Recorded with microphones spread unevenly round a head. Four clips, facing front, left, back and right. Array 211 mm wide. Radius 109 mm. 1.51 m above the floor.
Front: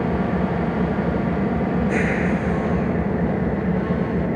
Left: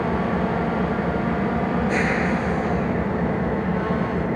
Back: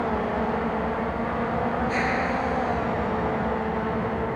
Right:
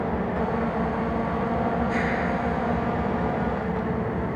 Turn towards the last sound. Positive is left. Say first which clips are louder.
# left 3 dB, front 3 dB
turn(degrees=15)